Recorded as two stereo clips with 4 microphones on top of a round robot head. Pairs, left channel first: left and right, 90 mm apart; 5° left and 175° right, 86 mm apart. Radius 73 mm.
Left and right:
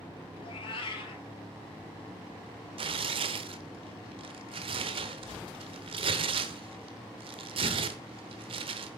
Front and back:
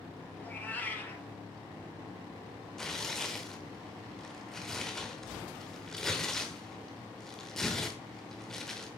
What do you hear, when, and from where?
0.4 s a cat meowing: 75° left, 2.5 m
2.8 s tearing paper: 85° right, 0.9 m